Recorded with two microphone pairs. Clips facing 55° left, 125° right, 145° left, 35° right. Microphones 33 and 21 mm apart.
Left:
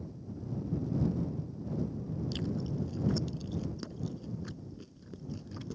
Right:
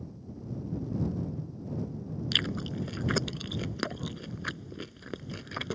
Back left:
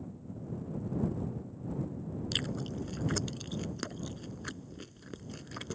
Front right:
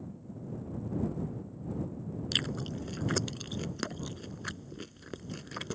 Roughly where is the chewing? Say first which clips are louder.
Right 9 dB, front right 3 dB; behind right.